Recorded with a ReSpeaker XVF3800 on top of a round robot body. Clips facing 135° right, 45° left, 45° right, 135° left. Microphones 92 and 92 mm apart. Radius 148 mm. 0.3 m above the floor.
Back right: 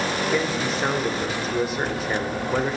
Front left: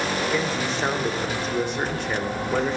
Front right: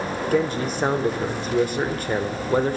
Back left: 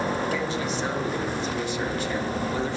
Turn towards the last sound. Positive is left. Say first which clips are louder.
# back right 1 dB, front right 5 dB
turn(degrees=-50)